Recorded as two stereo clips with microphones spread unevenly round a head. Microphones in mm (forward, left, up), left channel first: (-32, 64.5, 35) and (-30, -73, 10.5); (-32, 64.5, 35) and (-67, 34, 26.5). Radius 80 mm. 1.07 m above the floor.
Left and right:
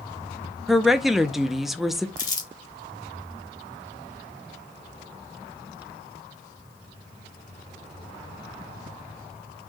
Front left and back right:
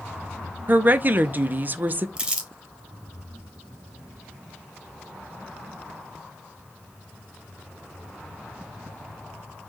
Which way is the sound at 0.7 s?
170° right.